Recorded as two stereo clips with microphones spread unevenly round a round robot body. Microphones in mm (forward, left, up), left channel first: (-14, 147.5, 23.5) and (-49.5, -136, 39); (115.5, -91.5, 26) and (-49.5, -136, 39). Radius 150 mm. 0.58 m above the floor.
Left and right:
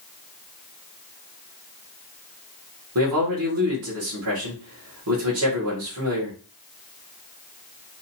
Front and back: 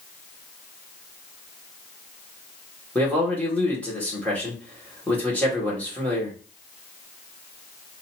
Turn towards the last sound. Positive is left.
turn(degrees=-65)